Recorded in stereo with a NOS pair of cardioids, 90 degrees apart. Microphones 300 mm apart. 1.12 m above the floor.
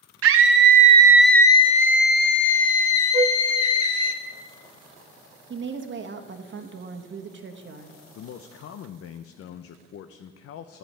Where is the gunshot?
No gunshot in this recording.